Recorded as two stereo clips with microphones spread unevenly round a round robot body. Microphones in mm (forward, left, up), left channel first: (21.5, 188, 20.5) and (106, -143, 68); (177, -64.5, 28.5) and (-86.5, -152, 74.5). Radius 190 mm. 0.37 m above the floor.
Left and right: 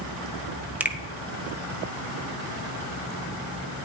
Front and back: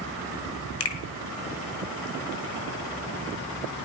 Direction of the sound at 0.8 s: 15° left.